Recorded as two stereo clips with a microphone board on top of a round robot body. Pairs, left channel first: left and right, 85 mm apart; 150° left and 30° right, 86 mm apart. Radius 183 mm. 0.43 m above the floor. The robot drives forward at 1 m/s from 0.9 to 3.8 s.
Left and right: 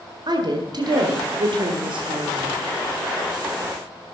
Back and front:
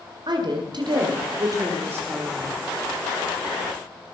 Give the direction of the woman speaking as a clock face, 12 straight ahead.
2 o'clock.